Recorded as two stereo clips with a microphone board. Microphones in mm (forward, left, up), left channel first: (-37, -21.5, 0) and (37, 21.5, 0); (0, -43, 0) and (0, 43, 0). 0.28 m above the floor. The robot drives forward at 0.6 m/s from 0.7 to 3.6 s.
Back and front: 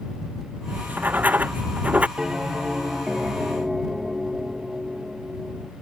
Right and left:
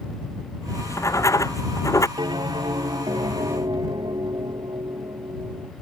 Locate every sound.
0.7 s writing: 40° right; by 2.1 s 45° right
2.2 s a bell: 110° left; by 5.7 s 115° left